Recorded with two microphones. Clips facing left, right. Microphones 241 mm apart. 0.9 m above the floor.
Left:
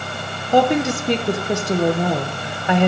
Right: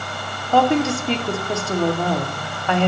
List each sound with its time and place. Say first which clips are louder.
0.5 s a woman speaking: left 1 dB; 20° left (ahead or behind), 0.6 m